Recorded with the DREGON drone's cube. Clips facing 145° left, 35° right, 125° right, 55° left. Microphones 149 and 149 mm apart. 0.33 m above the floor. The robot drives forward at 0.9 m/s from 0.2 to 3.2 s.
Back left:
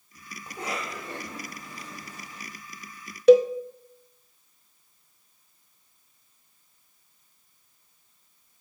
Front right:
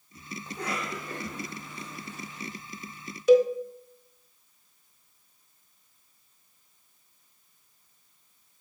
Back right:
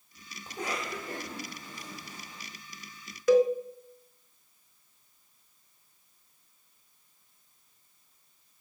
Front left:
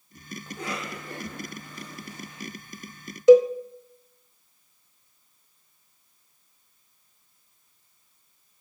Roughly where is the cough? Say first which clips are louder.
Even, even; behind right.